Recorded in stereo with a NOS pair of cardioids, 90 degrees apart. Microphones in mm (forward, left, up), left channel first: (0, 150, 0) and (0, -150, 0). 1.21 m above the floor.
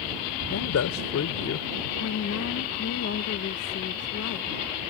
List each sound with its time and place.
0.5 s a man speaking: 65° left
2.0 s a woman speaking: 60° left